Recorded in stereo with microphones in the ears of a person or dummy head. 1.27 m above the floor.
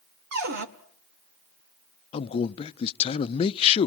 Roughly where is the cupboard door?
Right.